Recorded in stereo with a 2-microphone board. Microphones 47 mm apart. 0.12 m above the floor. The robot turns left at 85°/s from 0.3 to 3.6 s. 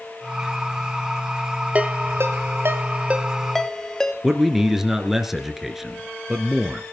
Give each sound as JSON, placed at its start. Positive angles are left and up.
{"t": 1.8, "sound": "a ringtone", "side_deg": -30, "distance_m": 1.5}
{"t": 4.2, "sound": "a man speaking", "side_deg": -5, "distance_m": 1.6}